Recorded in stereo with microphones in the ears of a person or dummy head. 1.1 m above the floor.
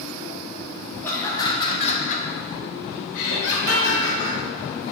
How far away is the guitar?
About 1.3 m.